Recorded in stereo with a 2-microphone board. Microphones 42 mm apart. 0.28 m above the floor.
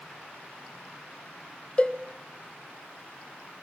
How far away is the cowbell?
About 1.2 m.